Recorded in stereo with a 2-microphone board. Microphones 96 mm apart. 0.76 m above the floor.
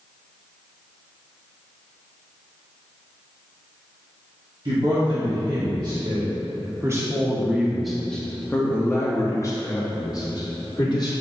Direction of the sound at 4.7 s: 60° right (ahead or behind).